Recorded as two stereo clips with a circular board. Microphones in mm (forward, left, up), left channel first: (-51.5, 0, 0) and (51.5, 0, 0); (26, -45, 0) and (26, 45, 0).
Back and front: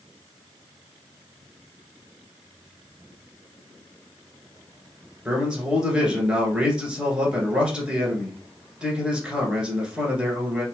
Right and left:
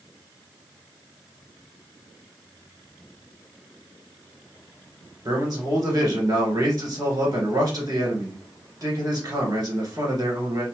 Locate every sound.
5.2 s a man speaking: 80° left, 1.4 m